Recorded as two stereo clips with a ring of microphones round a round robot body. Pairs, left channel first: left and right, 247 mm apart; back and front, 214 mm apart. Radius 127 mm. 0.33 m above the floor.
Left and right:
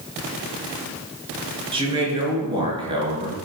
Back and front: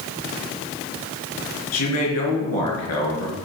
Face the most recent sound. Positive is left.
turn(degrees=-160)